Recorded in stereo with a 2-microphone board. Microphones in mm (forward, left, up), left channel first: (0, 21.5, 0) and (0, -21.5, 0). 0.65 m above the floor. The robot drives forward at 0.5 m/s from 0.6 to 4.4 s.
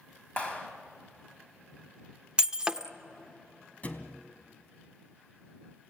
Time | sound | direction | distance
0.4 | a clap | 25° left (ahead or behind) | 3 m
2.4 | breaking glass | 20° right (ahead or behind) | 0.6 m
3.8 | a thud | 35° left (ahead or behind) | 1.9 m